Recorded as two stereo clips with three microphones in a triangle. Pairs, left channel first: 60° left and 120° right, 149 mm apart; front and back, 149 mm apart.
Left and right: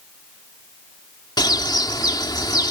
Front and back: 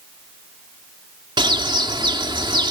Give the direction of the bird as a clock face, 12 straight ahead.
8 o'clock.